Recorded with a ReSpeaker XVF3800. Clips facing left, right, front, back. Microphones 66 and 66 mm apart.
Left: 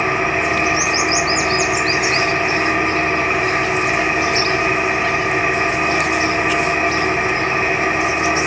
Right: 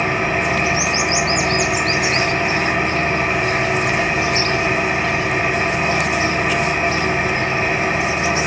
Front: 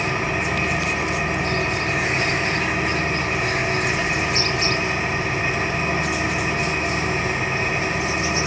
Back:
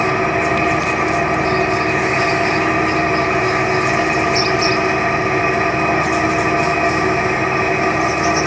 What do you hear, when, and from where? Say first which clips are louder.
0.0 s an engine running: left 1 dB, back 7 dB; 155° left, 2.5 m